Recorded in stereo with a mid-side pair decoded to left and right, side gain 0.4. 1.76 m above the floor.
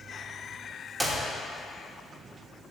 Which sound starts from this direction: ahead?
A clap, at 1.0 s.